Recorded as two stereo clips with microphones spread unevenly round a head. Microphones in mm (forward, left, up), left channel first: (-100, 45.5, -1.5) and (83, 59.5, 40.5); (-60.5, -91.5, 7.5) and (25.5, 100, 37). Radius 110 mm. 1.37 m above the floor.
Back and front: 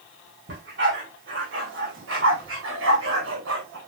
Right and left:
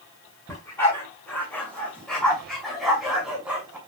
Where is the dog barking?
35° right, 5.5 m; by 3.8 s 15° right, 5 m.